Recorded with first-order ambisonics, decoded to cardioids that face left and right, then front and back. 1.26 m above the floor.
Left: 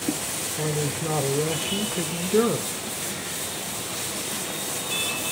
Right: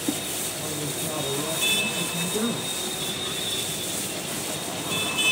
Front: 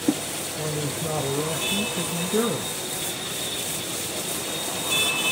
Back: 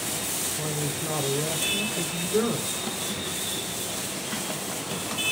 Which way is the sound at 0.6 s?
65° left.